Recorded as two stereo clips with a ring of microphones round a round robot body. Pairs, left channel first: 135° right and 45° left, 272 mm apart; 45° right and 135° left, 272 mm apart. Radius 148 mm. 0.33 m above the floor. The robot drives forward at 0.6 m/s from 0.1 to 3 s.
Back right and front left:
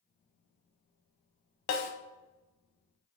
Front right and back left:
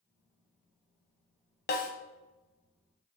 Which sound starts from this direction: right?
A snare drum, at 1.7 s.